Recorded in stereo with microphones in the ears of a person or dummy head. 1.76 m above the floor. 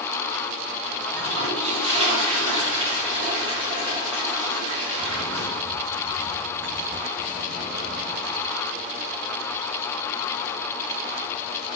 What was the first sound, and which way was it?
A toilet flushing, 30° right (ahead or behind).